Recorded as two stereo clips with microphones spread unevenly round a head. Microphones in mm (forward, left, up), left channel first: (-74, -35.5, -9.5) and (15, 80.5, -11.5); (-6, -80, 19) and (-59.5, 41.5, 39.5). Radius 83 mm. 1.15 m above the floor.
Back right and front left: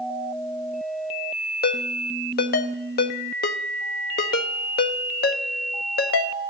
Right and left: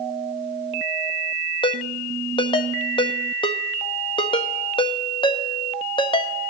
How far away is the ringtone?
About 0.7 m.